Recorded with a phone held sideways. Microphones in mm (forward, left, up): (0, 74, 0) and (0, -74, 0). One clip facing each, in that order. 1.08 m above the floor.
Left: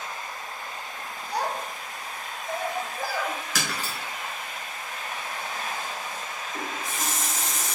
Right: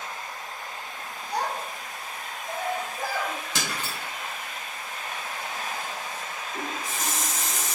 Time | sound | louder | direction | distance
1.3 | a child speaking | even | 20° right (ahead or behind) | 1.8 m
3.5 | breaking glass | left 1 dB | 25° right (ahead or behind) | 1.2 m
6.5 | a running tap | even | 10° left (ahead or behind) | 1.3 m